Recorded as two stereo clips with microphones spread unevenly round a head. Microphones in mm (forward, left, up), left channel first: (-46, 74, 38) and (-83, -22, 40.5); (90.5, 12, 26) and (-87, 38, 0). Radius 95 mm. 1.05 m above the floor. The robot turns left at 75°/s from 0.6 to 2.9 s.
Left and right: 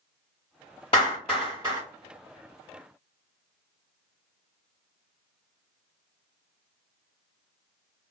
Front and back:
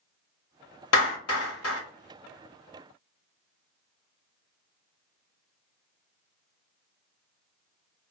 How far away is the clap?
About 1.2 m.